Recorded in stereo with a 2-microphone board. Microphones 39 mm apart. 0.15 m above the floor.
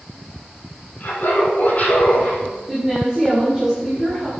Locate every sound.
1.0 s laughter: 50° left (ahead or behind), 6.5 m; by 2.4 s 40° left (ahead or behind), 7 m
2.7 s a woman speaking: 20° right (ahead or behind), 6 m